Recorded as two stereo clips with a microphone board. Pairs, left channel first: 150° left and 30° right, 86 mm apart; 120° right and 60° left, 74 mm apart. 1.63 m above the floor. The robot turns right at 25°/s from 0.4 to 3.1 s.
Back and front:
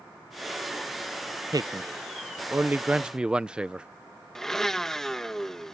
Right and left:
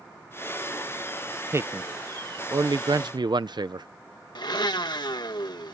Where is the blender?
125° right.